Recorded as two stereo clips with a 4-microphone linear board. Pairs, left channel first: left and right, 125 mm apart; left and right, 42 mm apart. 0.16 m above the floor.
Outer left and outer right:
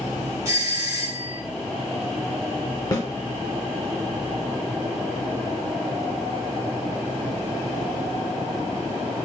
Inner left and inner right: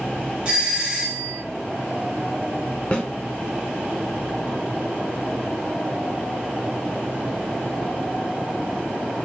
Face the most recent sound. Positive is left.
turn(degrees=30)  # may be behind; listen again after turning